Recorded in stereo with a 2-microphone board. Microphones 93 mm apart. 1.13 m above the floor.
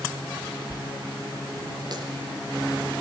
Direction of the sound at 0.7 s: 50° right (ahead or behind).